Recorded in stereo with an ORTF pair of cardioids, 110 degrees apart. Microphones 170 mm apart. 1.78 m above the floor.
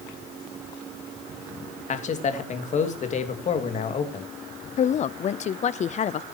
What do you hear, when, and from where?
1.9 s a man speaking: 45° left, 2.5 m
4.8 s a woman speaking: 45° left, 0.7 m